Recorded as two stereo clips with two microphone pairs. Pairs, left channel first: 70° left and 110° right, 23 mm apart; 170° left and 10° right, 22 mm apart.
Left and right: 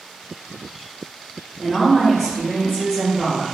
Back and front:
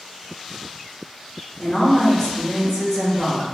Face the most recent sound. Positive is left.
turn(degrees=-170)